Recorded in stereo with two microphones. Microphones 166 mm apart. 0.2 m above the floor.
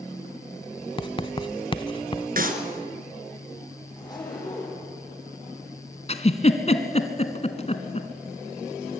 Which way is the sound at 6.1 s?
40° left (ahead or behind).